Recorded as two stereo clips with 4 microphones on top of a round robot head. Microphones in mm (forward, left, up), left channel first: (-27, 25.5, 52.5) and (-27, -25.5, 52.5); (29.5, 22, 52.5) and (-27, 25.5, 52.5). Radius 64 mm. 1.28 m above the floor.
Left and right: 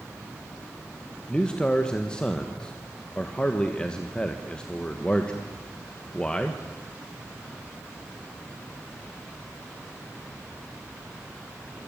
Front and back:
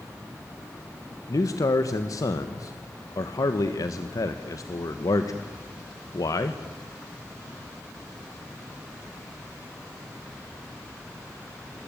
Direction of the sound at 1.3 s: 15° left.